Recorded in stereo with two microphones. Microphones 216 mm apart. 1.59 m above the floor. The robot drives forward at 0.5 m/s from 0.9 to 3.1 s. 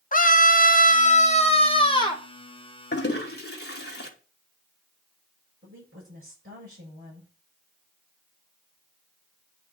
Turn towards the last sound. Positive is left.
turn(degrees=-65)  # may be behind; listen again after turning